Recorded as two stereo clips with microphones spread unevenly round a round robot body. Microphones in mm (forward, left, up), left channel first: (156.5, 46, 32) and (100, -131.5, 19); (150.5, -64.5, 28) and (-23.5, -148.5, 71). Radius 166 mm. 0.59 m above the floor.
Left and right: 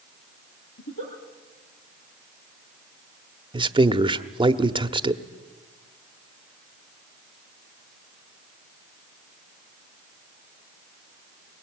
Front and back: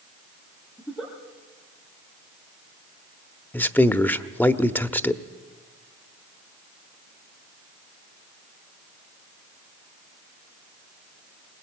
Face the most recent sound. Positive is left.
turn(degrees=-45)